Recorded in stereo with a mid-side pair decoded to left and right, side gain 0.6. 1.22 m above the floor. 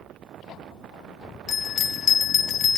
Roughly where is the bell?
Ahead left.